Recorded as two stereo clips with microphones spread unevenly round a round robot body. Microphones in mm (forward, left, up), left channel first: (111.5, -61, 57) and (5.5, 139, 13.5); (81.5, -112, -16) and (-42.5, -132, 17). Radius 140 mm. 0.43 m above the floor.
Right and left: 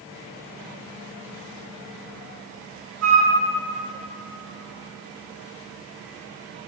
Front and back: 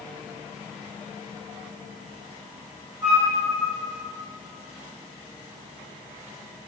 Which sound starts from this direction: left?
A flute, at 3.0 s.